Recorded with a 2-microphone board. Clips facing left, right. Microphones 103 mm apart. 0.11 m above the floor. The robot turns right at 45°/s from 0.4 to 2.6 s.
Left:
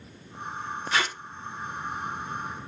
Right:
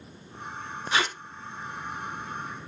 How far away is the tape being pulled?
About 1.0 m.